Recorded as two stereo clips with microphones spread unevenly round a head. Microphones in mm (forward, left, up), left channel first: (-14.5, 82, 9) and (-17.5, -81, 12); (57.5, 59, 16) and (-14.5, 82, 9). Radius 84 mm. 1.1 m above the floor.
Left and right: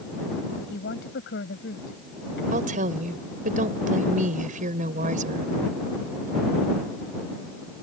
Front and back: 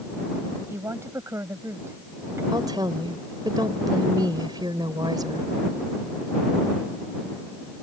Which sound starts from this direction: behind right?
A woman speaking, at 2.5 s.